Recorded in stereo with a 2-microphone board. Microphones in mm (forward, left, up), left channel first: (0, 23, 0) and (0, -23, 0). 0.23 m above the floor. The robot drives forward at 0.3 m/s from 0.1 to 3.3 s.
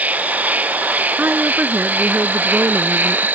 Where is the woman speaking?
45° right (ahead or behind); by 3.3 s 55° right (ahead or behind).